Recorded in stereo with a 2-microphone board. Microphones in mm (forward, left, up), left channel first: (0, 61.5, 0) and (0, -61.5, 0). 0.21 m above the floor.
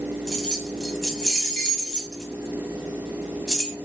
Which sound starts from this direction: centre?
Keys jangling, at 0.3 s.